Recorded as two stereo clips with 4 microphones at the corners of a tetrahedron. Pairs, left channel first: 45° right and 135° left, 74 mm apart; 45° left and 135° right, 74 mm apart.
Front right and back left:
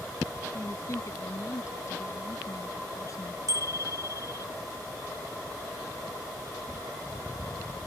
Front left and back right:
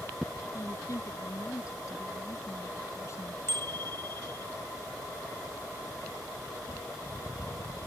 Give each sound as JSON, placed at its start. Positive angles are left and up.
{"t": 0.5, "sound": "a woman speaking", "azimuth_deg": 0}
{"t": 3.5, "sound": "a bicycle bell", "azimuth_deg": 100}